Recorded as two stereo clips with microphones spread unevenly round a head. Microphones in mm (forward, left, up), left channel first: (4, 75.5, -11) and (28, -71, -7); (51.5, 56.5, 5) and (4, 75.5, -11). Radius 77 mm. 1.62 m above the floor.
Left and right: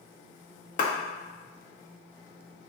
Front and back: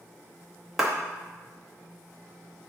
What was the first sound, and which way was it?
A clap, 70° left.